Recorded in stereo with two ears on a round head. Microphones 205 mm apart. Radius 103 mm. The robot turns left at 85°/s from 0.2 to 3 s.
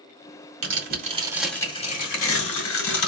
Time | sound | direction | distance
0.6 | tearing paper | 110° right | 1.9 m